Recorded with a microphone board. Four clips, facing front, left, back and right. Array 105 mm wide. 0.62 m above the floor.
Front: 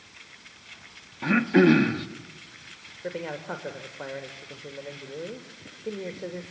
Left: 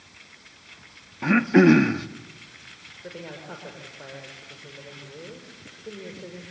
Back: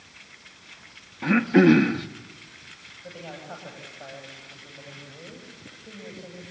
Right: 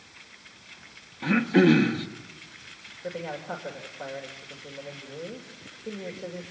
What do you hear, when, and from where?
1.2 s throat clearing: 95° left, 1.0 m
3.0 s a man speaking: 5° right, 2.5 m